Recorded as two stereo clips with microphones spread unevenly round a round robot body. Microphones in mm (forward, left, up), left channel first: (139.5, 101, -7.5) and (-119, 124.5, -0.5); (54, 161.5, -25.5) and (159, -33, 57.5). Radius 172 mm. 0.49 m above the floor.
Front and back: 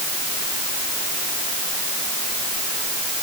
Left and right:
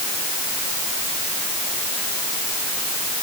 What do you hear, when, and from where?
Only background noise.